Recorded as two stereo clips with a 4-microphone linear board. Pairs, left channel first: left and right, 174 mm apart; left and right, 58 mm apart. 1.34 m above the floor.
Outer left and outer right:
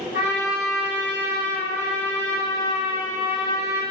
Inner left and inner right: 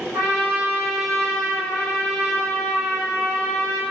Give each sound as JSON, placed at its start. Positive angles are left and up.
{"t": 0.1, "sound": "a trumpet", "side_deg": -10, "distance_m": 1.6}